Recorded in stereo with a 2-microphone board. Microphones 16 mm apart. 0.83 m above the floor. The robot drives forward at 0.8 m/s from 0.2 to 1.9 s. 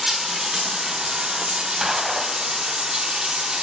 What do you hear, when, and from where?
0.0 s running water: 40° right (ahead or behind), 1.3 m; by 3.6 s 65° right (ahead or behind), 0.9 m
1.8 s a gunshot: 40° right (ahead or behind), 1.0 m